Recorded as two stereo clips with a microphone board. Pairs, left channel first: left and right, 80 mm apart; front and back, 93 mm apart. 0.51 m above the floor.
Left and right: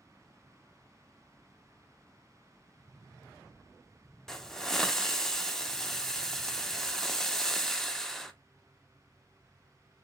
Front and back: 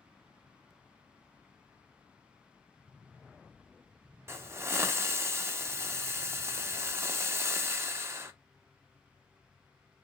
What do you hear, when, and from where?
4.3 s a hiss: 170° left, 0.5 m